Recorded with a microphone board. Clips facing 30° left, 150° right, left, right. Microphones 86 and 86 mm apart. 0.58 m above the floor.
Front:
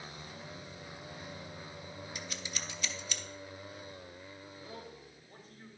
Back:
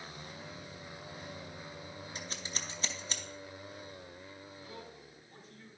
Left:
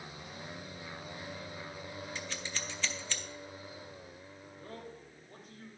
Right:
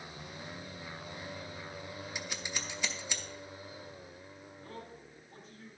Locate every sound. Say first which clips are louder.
2.1 s scissors: back 1 dB, even; 160° right, 0.7 m
4.6 s a man speaking: front 3 dB, left 1 dB; 75° left, 3 m